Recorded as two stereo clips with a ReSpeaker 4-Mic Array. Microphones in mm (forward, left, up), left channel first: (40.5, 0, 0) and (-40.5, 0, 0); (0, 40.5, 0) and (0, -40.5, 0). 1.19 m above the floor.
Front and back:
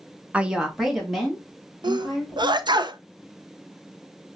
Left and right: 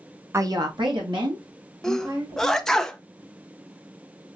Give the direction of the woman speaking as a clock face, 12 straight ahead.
4 o'clock.